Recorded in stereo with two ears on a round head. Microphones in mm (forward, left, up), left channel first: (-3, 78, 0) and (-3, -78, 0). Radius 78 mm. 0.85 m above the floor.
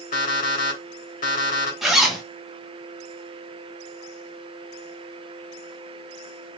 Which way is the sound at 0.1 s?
50° left (ahead or behind).